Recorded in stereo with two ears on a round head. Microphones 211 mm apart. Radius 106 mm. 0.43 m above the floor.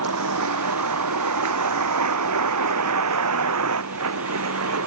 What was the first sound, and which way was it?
A vehicle, 75° right (ahead or behind).